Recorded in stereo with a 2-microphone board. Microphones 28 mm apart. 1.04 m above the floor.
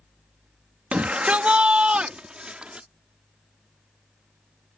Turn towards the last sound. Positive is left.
turn(degrees=-35)  # may be behind; listen again after turning